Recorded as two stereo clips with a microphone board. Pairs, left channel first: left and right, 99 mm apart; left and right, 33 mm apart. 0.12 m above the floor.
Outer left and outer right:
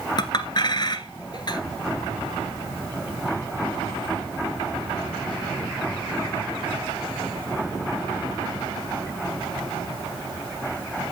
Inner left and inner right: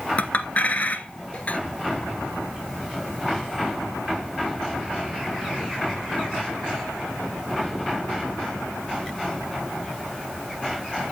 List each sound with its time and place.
0.2 s a clink: 50° left (ahead or behind), 1.2 m